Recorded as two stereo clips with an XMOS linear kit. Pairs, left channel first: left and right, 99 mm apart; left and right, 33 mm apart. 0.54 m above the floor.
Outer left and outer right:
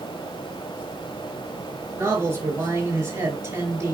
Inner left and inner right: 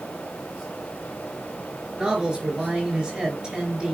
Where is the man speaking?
25° right (ahead or behind), 4.5 m.